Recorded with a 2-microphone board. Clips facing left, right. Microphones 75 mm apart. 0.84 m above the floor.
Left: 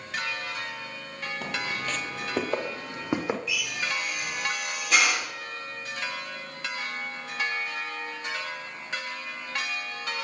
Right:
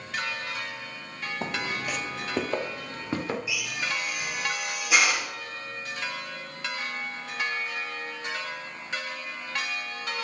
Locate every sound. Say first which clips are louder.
1.4 s footsteps: right 1 dB; 30° right (ahead or behind), 1.0 m; by 3.4 s 20° left (ahead or behind), 1.8 m
3.5 s a drill: even; 10° right (ahead or behind), 4 m